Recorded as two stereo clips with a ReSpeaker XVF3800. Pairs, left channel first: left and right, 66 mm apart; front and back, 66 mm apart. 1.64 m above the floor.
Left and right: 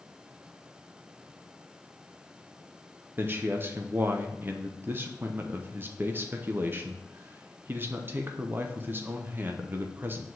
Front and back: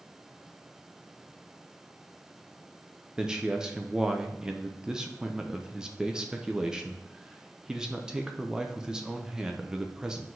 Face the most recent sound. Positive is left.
turn(degrees=-105)